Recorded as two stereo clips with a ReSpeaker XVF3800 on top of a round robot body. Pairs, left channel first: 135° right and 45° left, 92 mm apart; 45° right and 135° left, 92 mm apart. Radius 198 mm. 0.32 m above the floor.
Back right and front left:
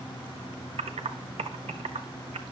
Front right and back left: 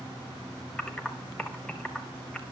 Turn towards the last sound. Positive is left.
turn(degrees=35)